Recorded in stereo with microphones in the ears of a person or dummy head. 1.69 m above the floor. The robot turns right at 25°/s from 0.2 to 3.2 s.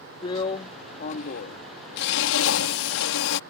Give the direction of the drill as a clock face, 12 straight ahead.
11 o'clock.